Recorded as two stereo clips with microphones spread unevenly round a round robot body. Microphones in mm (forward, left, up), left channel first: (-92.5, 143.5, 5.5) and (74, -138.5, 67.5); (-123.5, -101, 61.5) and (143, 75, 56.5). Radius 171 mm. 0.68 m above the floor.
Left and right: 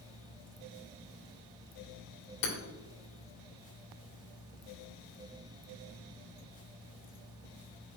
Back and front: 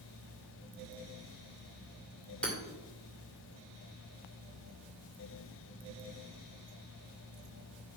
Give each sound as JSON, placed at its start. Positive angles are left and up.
{"t": 2.4, "sound": "hammering", "azimuth_deg": 125, "distance_m": 2.0}